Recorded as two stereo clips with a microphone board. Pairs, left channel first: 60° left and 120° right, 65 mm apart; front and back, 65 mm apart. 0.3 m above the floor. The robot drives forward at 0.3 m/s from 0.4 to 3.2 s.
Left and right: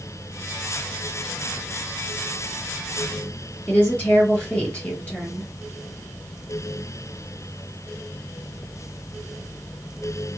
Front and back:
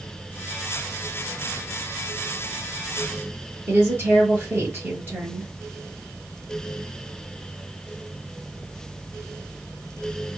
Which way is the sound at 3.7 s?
130° left.